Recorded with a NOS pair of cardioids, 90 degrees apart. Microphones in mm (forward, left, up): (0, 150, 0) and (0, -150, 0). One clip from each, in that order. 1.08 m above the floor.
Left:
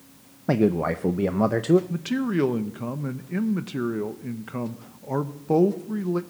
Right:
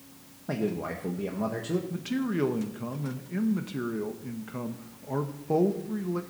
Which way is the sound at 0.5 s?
50° left.